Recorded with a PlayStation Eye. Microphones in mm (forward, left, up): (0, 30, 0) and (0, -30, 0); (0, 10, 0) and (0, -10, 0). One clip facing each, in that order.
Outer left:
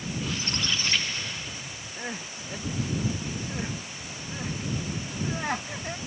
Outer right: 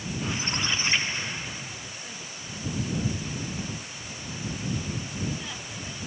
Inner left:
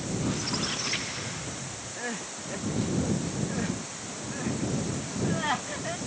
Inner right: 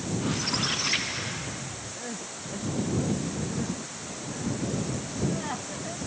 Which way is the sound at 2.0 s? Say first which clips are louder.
Outer left 5 dB, inner left 6 dB; 55° left (ahead or behind).